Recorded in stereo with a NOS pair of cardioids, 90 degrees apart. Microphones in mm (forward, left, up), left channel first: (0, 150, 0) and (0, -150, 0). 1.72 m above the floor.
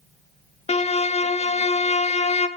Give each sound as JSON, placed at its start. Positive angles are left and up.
{"t": 0.7, "sound": "a violin", "azimuth_deg": 20, "distance_m": 0.6}